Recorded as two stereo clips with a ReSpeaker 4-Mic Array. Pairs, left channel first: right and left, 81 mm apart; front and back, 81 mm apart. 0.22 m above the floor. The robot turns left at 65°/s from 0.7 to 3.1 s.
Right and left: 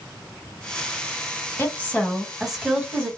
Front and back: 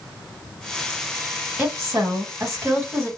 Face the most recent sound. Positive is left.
turn(degrees=135)